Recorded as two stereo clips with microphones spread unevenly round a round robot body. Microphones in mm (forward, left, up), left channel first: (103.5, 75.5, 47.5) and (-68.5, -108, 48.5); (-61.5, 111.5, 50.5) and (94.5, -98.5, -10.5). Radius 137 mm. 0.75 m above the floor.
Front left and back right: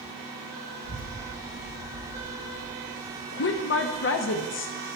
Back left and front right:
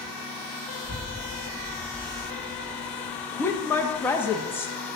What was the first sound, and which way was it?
A child speaking, 10° right.